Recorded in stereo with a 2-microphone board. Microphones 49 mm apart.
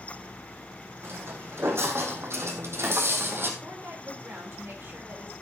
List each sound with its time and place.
1.0 s footsteps: 60° right (ahead or behind), 2.5 m; by 3.5 s 50° right (ahead or behind), 1.7 m
3.6 s a woman speaking: 55° right (ahead or behind), 3.5 m